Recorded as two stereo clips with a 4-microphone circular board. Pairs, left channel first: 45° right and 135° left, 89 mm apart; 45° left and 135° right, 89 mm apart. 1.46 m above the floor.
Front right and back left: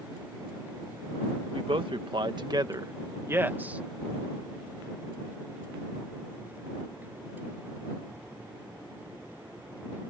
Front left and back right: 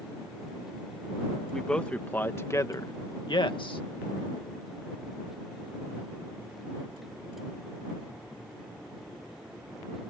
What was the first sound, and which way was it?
A man speaking, 130° left.